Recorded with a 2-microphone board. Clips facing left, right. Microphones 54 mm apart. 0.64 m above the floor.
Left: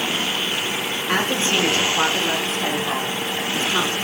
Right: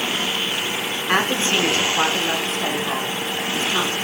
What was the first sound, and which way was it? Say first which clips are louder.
A woman speaking: right 1 dB; 30° right (ahead or behind).